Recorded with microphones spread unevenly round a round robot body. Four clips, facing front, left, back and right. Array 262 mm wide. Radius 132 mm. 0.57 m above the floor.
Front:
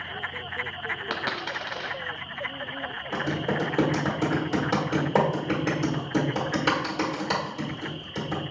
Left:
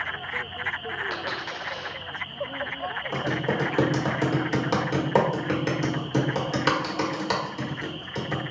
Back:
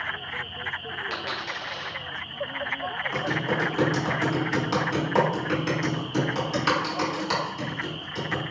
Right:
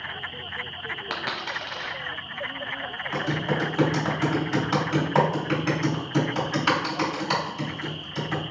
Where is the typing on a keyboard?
60° left, 1.6 m.